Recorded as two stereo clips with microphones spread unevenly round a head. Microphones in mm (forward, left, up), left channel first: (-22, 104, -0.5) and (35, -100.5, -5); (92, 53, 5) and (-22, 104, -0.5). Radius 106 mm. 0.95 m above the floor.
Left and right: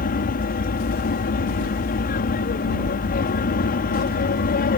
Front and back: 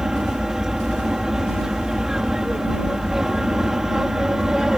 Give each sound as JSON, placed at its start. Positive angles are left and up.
{"t": 0.0, "sound": "an aircraft", "azimuth_deg": 70}